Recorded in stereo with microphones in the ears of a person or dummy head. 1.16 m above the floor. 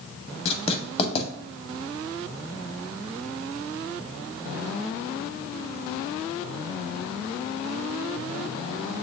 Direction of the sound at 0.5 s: 35° left (ahead or behind).